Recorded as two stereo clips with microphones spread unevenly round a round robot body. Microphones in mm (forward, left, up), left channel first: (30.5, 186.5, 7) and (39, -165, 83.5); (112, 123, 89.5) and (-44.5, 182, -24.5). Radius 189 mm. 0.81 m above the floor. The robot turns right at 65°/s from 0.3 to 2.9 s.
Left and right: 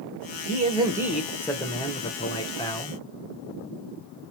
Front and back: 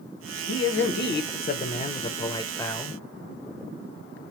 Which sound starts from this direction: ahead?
A man speaking, at 0.5 s.